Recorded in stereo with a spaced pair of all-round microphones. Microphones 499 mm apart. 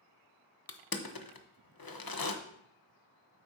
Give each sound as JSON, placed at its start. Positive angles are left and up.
{"t": 0.7, "sound": "crushing", "side_deg": 45, "distance_m": 0.7}